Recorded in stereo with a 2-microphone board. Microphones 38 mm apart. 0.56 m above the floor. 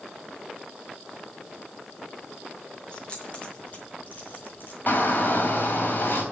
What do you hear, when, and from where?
2.9 s keys jangling: 30° left (ahead or behind), 5.5 m; by 4.8 s 60° left (ahead or behind), 4 m
4.9 s a shout: 55° left (ahead or behind), 3 m